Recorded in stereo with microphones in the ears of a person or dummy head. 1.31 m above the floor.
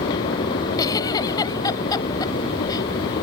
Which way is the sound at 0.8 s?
25° left (ahead or behind).